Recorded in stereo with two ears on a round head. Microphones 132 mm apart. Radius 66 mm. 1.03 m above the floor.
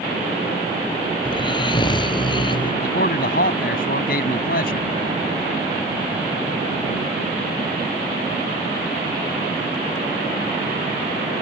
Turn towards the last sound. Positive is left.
turn(degrees=70)  # may be behind; listen again after turning